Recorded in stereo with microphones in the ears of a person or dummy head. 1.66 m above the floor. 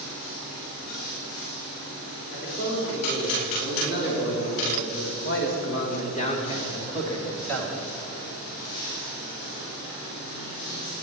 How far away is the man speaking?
About 4 m.